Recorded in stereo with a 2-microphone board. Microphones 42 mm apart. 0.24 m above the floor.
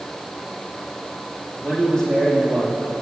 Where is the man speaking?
10° left (ahead or behind), 5.5 m.